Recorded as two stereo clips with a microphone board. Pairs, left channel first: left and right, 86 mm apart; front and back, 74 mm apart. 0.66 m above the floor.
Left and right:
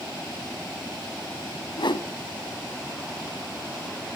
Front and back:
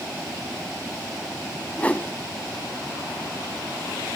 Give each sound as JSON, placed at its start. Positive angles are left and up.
{"t": 1.8, "sound": "a whoosh", "azimuth_deg": 70, "distance_m": 1.3}